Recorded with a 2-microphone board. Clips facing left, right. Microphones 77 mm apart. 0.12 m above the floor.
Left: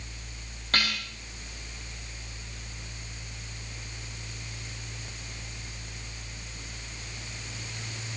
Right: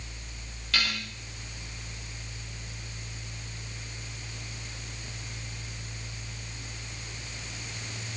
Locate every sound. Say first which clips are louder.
0.7 s dishes clattering: left 2 dB; 40° left (ahead or behind), 8 m